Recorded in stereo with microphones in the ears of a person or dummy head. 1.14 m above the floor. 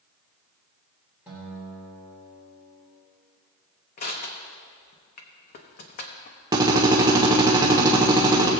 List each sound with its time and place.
1.3 s a guitar: 10° right (ahead or behind), 4 m
4.0 s crushing: 45° left (ahead or behind), 1.0 m
6.5 s a drill: 25° right (ahead or behind), 1.4 m